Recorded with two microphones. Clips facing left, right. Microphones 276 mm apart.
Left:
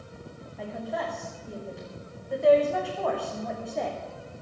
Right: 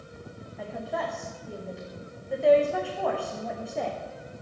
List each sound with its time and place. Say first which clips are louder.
0.6 s a woman speaking: even; centre (ahead or behind), 8 m